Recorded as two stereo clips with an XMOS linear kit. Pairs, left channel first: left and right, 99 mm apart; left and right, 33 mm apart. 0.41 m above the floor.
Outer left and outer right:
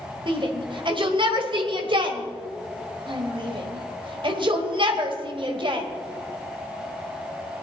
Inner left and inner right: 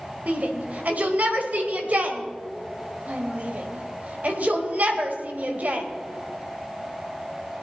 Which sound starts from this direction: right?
A shout, at 0.3 s.